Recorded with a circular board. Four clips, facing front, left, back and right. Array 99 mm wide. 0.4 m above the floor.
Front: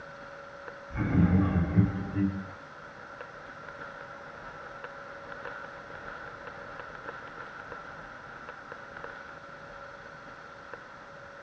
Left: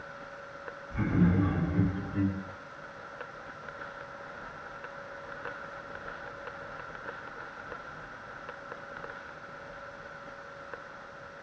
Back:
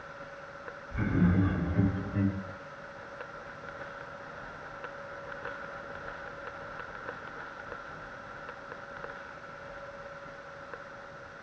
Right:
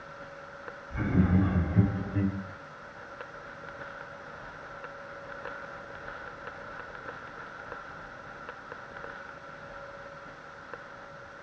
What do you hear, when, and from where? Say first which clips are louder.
0.9 s laughter: even, front 2 dB; 20° right, 2.0 m; by 2.4 s 155° right, 0.8 m